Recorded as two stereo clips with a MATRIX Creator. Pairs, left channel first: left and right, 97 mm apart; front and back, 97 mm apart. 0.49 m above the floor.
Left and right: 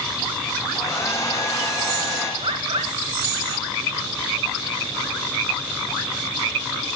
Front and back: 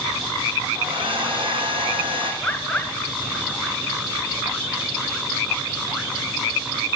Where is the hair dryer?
150° left, 5 m.